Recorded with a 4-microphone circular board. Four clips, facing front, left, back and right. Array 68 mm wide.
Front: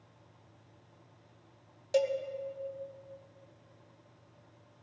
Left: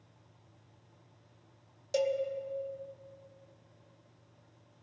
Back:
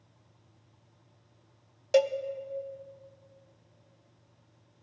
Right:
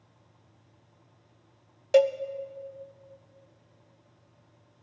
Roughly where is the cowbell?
Behind right.